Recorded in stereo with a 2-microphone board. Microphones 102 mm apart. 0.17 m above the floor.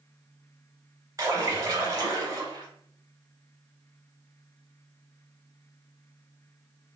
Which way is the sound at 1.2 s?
30° right (ahead or behind).